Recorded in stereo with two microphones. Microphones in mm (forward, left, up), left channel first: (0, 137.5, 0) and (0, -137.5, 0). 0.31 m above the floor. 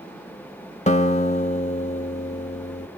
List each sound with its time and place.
0.9 s a guitar: 25° left (ahead or behind), 1.1 m